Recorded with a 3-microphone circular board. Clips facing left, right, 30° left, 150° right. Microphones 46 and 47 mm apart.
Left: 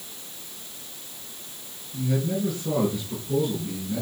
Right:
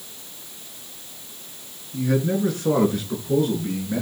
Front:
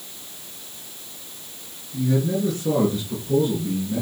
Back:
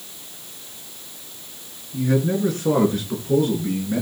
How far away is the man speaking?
About 6 m.